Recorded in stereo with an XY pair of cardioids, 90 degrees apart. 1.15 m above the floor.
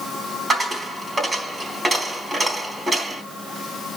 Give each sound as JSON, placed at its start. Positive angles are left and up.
{"t": 0.5, "sound": "a dropped coin", "azimuth_deg": -25, "distance_m": 4.0}